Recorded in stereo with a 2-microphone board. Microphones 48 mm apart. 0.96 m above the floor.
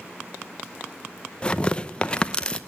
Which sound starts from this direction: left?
Tearing paper, at 1.4 s.